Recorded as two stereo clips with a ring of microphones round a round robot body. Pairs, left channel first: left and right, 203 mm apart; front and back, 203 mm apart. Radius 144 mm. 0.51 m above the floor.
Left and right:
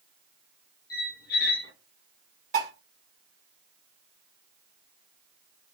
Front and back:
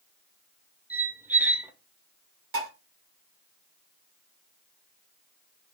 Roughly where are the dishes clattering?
Behind right.